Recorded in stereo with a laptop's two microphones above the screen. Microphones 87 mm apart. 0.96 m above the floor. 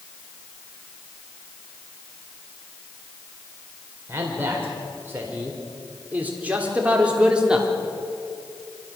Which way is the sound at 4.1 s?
25° right (ahead or behind).